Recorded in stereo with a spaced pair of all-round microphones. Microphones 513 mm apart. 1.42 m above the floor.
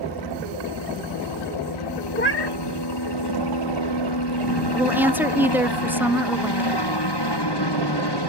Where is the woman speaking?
5° right (ahead or behind).